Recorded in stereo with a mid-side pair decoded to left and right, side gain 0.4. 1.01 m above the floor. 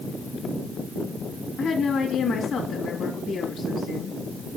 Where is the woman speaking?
60° left, 2 m.